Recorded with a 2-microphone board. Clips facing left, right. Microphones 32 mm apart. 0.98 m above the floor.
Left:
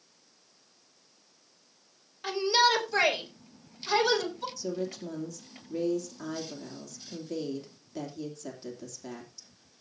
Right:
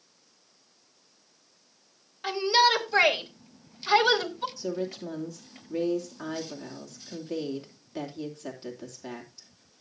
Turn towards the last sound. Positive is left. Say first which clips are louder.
# even
turn(degrees=-25)  # may be behind; listen again after turning